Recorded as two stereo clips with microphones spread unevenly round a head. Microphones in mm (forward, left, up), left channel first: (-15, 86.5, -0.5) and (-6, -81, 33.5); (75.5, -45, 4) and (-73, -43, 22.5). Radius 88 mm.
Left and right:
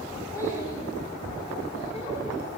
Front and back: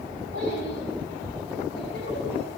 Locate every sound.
0.3 s a child speaking: 20° left, 6 m; by 2.5 s 40° left, 6 m